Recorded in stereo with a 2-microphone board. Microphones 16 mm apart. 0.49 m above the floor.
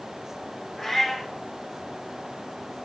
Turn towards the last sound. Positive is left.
turn(degrees=10)  # may be behind; listen again after turning